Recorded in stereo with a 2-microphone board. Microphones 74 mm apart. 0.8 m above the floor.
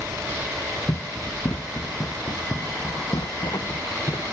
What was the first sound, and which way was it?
Running footsteps, 80° left.